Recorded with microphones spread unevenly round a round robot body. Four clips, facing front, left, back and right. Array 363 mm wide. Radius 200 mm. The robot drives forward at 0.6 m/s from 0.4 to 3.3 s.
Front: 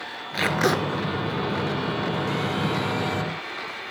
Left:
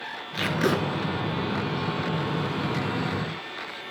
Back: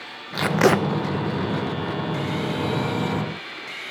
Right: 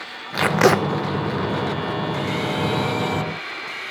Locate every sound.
0.3 s tape being pulled: 70° right, 0.5 m; by 0.8 s 100° right, 0.5 m